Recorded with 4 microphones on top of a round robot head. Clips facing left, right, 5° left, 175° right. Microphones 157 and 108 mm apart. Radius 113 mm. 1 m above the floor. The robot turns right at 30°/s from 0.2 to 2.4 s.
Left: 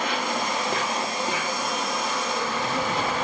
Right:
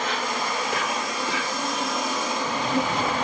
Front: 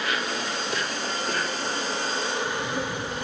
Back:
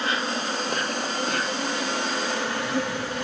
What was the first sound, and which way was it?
An insect, 130° left.